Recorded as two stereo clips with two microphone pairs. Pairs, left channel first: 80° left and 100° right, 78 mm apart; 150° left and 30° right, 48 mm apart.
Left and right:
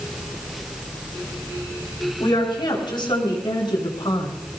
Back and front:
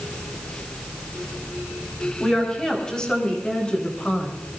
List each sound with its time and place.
2.2 s a woman speaking: 70° left, 7.5 m; by 4.3 s 80° left, 6 m